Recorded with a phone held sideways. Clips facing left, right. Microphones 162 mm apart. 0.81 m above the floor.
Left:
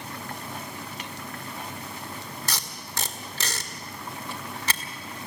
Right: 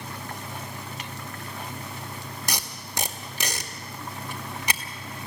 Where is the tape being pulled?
15° right (ahead or behind), 1.9 m.